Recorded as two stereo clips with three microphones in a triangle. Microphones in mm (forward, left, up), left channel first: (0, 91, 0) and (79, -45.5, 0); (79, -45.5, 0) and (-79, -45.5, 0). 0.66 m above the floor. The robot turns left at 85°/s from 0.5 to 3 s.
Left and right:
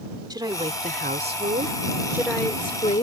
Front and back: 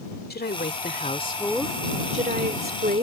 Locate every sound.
0.3 s a woman speaking: 5° left; by 3.0 s 150° left